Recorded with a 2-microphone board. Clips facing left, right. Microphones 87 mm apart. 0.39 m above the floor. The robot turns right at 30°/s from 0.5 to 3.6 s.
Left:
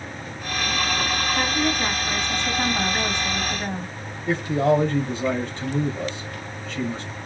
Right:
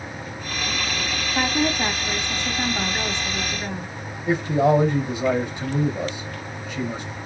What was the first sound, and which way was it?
A woman speaking, 45° right.